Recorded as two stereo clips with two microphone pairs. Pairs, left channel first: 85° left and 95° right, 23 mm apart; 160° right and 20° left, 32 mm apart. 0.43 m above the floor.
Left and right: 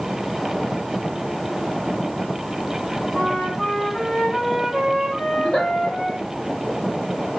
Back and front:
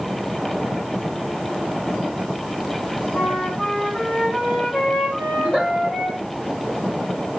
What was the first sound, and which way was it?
A flute, 135° left.